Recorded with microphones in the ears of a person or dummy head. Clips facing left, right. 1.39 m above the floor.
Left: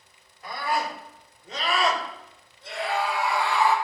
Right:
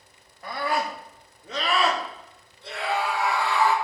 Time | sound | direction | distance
0.4 | a scream | 55° right (ahead or behind) | 3.5 m